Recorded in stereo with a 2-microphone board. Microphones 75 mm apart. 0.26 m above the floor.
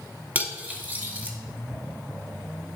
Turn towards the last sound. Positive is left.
turn(degrees=-25)  # may be behind; listen again after turning